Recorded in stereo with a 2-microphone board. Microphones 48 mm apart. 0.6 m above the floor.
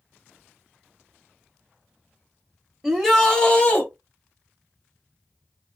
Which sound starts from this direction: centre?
A shout, at 2.8 s.